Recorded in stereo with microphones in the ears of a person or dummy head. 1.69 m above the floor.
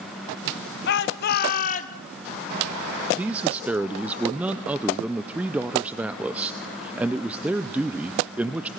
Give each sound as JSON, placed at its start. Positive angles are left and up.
{"t": 0.9, "sound": "a shout", "side_deg": 65, "distance_m": 1.8}
{"t": 3.2, "sound": "a man speaking", "side_deg": -10, "distance_m": 0.6}